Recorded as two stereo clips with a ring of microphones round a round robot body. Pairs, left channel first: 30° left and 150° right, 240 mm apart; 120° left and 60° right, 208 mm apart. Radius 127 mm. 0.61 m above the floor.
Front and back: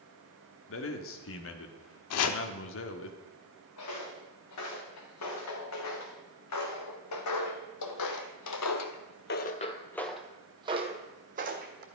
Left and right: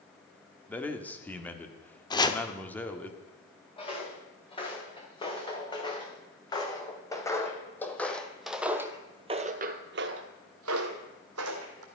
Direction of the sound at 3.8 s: 55° left.